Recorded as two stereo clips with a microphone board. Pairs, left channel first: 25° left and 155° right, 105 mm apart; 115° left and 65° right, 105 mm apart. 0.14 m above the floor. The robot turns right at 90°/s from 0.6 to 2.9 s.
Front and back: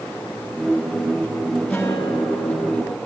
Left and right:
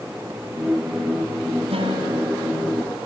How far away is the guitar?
About 4 m.